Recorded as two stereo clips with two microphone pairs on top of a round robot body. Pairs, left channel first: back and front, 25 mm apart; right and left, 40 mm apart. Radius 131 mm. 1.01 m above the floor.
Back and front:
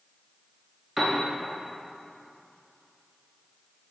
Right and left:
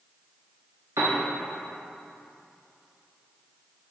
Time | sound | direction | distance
1.0 | a piano | 90° left | 0.5 m